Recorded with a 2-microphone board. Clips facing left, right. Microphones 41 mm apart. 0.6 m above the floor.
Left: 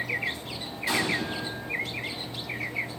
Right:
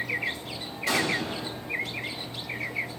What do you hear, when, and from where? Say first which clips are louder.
0.9 s an explosion: right 1 dB; 70° right (ahead or behind), 4 m